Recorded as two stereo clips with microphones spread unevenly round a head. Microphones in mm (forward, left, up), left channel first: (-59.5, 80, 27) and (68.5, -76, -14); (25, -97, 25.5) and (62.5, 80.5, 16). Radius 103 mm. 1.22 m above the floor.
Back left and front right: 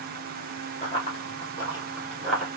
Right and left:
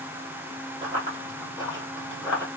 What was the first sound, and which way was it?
Running footsteps, 125° left.